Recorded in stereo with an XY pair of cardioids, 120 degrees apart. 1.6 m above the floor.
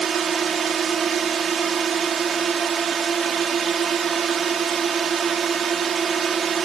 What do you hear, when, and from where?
0.0 s a drone: 40° right